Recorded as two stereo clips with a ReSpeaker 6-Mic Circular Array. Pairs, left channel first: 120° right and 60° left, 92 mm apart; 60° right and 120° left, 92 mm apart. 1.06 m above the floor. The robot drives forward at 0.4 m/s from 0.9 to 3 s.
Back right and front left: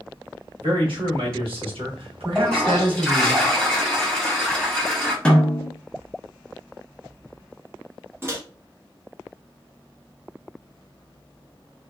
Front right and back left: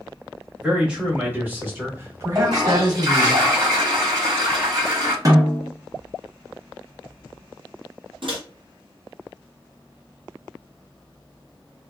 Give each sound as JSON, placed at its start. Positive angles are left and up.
{"t": 0.6, "sound": "a man speaking", "azimuth_deg": 40, "distance_m": 1.3}
{"t": 2.4, "sound": "a toilet flushing", "azimuth_deg": 160, "distance_m": 1.8}
{"t": 5.2, "sound": "a snare drum", "azimuth_deg": 165, "distance_m": 0.8}
{"t": 8.2, "sound": "a microwave", "azimuth_deg": 120, "distance_m": 0.7}